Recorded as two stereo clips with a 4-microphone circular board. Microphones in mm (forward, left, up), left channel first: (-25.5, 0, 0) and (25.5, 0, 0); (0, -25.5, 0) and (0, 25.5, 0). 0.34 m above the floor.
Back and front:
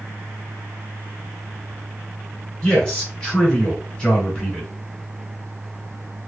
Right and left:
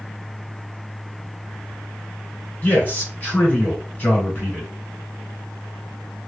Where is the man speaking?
115° right, 1.8 m.